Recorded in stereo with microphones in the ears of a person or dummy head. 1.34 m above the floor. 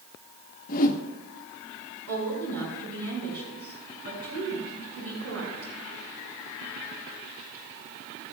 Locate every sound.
0.7 s a whoosh: 45° left (ahead or behind), 1.0 m
2.1 s a woman speaking: 85° right, 5.5 m